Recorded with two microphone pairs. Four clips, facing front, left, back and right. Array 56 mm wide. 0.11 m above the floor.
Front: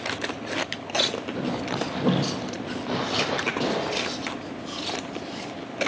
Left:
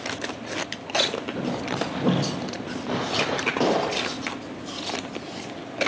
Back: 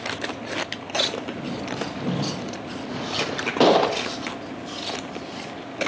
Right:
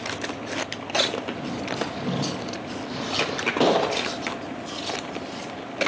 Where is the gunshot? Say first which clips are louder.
Right 4 dB, back 9 dB; 165° right, 2.0 m.